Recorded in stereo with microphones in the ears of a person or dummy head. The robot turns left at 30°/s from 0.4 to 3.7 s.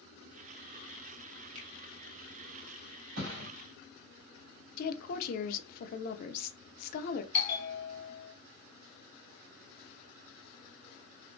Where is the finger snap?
35° right (ahead or behind), 1.2 m; by 1.7 s 40° right (ahead or behind), 1.2 m.